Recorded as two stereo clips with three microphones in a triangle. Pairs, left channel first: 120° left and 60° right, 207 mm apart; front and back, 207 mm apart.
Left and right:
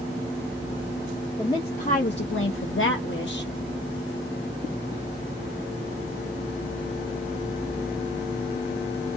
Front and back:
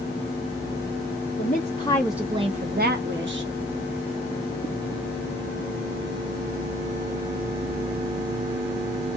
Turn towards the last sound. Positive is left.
turn(degrees=155)